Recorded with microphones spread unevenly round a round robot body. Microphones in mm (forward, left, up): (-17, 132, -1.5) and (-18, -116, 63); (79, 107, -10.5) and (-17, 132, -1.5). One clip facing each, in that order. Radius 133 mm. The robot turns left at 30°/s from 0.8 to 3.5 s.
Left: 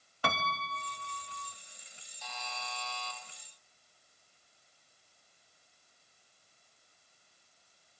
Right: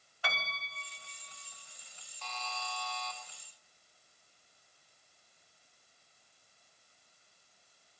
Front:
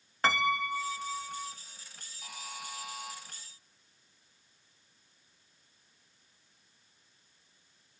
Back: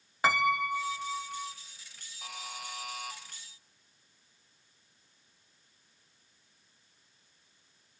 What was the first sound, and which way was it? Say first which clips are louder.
A piano: left 8 dB, back 2 dB; 100° left.